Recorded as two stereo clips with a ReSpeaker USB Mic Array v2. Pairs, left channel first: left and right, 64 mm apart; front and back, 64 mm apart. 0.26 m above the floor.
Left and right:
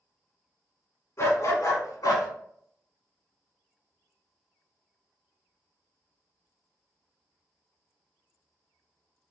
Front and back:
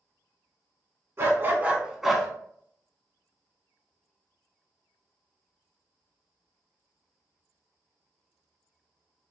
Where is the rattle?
No rattle in this recording.